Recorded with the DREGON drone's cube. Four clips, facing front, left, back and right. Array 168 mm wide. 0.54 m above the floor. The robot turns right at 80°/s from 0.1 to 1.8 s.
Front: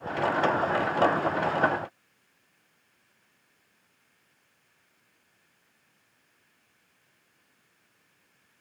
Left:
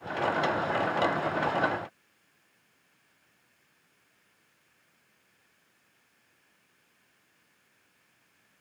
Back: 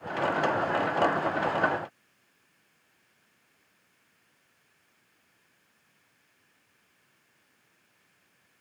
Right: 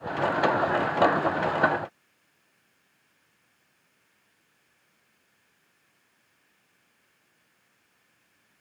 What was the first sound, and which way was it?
Only background noise.